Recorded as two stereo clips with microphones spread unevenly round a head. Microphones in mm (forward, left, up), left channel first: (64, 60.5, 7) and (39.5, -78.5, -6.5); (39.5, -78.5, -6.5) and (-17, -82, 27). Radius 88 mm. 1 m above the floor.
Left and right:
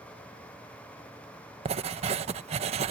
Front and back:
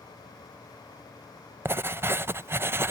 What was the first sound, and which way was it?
Writing, 115° right.